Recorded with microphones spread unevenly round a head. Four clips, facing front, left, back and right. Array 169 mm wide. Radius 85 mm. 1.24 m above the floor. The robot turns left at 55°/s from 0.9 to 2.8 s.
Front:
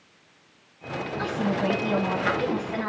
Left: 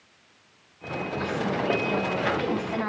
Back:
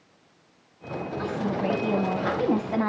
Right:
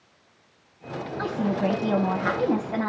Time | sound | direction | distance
1.2 | a woman speaking | 70° right | 3 m